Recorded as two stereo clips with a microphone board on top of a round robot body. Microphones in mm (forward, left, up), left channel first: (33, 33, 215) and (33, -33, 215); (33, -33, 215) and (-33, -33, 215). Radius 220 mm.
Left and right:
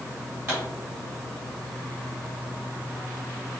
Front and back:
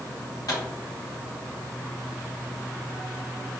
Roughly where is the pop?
Ahead right.